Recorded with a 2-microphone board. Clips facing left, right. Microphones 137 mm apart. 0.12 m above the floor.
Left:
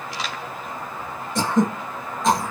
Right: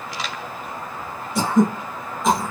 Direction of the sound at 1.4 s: 5° right (ahead or behind).